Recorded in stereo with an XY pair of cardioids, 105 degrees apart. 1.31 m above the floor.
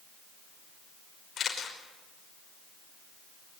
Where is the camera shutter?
50° left, 5.5 m.